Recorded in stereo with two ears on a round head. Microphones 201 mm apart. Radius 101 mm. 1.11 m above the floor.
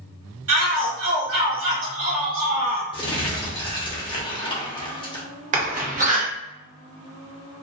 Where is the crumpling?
20° left (ahead or behind), 0.6 m.